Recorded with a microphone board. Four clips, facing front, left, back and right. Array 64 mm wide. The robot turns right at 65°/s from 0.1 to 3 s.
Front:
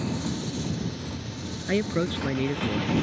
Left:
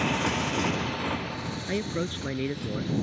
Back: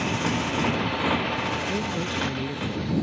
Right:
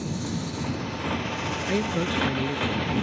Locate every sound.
0.0 s a motorcycle: 120° left; by 3.0 s 70° right
1.7 s a man speaking: 25° right; by 3.0 s 60° left